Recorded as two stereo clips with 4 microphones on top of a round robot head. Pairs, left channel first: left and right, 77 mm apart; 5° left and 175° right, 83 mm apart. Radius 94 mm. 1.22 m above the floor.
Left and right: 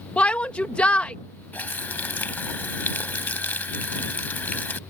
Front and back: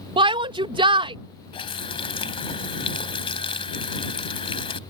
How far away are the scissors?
No scissors in this recording.